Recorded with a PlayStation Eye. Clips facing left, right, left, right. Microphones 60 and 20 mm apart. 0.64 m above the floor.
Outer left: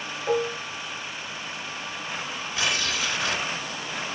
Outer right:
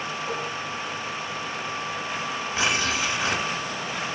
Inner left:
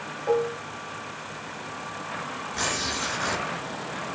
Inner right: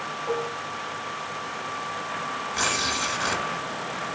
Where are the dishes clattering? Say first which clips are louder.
Outer left 10 dB, inner left 5 dB; 75° left (ahead or behind), 1.3 m.